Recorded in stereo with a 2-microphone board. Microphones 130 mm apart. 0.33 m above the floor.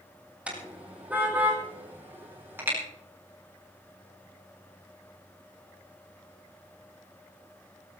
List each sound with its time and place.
0.5 s a car horn: 10° right (ahead or behind), 5.5 m; by 2.8 s 15° right (ahead or behind), 7 m